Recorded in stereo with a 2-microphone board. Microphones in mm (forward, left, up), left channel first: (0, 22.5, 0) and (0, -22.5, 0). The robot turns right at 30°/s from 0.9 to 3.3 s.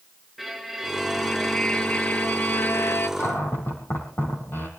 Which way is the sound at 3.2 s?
65° left (ahead or behind).